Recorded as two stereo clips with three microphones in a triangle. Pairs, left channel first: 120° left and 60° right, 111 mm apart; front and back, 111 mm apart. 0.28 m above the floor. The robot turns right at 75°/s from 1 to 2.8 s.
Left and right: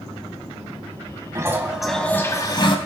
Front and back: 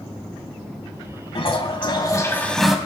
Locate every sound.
1.4 s a toilet flushing: 10° right, 1.3 m; by 2.8 s 95° left, 1.3 m